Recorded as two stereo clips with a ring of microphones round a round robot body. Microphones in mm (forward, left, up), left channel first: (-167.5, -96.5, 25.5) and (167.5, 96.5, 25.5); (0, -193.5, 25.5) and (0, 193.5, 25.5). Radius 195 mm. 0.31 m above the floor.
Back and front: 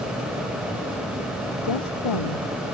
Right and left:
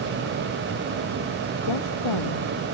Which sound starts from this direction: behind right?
A woman speaking, at 1.6 s.